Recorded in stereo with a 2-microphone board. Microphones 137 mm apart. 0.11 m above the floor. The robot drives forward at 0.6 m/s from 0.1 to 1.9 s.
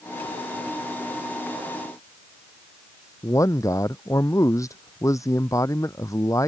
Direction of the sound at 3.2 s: 25° left (ahead or behind).